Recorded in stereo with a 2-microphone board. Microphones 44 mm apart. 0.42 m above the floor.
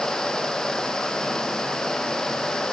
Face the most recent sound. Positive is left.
No sound to turn to.